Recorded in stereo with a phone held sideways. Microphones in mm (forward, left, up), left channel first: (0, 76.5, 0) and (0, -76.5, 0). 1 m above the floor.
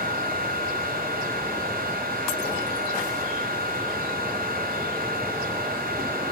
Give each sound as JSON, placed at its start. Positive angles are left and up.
{"t": 0.0, "sound": "a fan", "side_deg": -75, "distance_m": 6.5}